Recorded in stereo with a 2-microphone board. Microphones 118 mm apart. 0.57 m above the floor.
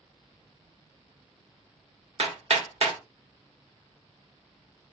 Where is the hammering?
65° right (ahead or behind), 1.1 m.